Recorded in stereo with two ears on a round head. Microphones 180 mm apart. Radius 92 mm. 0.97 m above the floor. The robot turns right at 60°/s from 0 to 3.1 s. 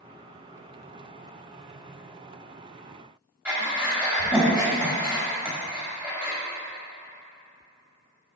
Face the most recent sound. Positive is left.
turn(degrees=-10)  # may be behind; listen again after turning